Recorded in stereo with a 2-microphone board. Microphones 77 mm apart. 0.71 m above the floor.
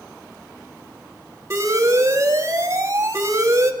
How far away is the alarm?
About 1.6 m.